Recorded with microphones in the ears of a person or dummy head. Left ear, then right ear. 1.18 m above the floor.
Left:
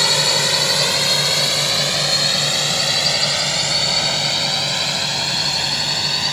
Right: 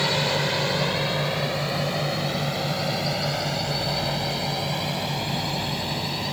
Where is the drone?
75° left (ahead or behind); by 6.3 s 55° left (ahead or behind).